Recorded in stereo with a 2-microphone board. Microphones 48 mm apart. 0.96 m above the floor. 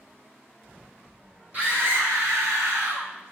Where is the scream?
40° right (ahead or behind), 1.3 m; by 3.1 s 65° right (ahead or behind), 1.3 m.